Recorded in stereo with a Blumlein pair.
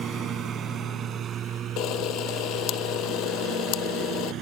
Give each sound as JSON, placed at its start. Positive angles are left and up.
{"t": 0.0, "sound": "a lawn mower", "azimuth_deg": -25}
{"t": 1.8, "sound": "a camera shutter", "azimuth_deg": 35}